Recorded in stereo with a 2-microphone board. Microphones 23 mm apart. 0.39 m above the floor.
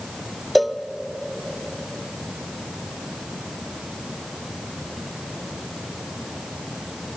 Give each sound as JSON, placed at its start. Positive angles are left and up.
{"t": 0.6, "sound": "a cowbell", "side_deg": 0, "distance_m": 0.9}